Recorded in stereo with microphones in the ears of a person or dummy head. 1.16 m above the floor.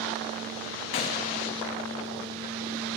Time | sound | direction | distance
0.9 | a gunshot | 35° left (ahead or behind) | 0.6 m